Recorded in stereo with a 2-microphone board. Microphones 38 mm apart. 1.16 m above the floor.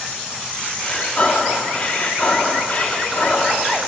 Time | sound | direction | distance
0.8 | breathing | 35° left (ahead or behind) | 1.5 m